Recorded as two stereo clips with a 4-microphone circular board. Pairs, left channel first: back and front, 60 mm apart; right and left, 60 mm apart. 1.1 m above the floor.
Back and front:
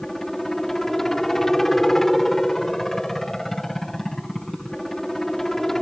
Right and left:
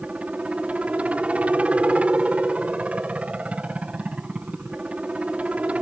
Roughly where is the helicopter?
Left.